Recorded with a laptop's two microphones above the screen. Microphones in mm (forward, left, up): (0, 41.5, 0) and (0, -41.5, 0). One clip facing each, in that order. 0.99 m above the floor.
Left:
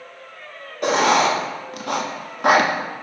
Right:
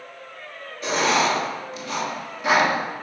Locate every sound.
0.8 s writing: 60° left (ahead or behind), 1.2 m